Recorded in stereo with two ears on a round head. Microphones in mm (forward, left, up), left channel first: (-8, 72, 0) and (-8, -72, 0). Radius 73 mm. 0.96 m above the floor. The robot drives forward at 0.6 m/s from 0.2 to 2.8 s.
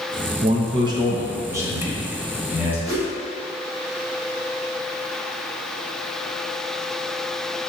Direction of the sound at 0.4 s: 35° right (ahead or behind).